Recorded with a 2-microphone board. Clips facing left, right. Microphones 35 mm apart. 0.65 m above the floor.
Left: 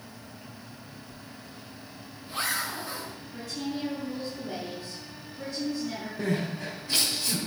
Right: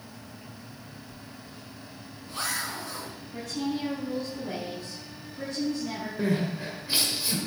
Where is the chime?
No chime in this recording.